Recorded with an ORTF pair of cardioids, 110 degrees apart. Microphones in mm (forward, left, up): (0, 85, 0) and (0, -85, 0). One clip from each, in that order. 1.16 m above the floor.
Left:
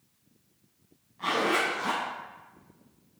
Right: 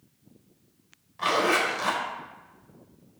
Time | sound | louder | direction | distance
1.2 | a zipper | right 3 dB | 65° right | 3.5 m